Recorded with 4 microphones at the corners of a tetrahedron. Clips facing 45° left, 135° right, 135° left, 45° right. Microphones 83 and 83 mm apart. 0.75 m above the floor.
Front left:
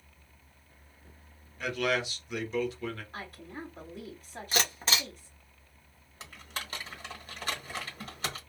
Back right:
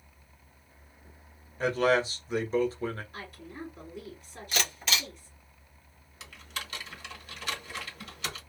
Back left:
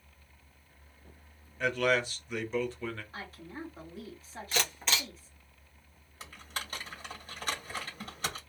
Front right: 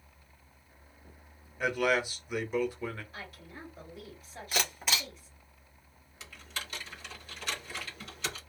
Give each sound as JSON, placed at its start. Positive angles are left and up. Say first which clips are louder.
{"t": 1.6, "sound": "a man speaking", "louder": "back right 5 dB, even", "azimuth_deg": -115, "distance_m": 0.8}
{"t": 3.1, "sound": "a woman speaking", "louder": "even, back left 3 dB", "azimuth_deg": 80, "distance_m": 1.9}
{"t": 4.5, "sound": "a camera shutter", "louder": "front left 1 dB, even", "azimuth_deg": 35, "distance_m": 1.2}
{"t": 6.2, "sound": "typing on a keyboard", "louder": "even, back left 2 dB", "azimuth_deg": 90, "distance_m": 1.2}